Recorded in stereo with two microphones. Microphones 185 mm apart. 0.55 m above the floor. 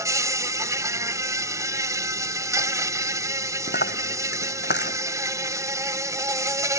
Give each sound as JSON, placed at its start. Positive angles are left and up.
{"t": 0.0, "sound": "an insect", "side_deg": -15}
{"t": 3.7, "sound": "a dropped coin", "side_deg": 70}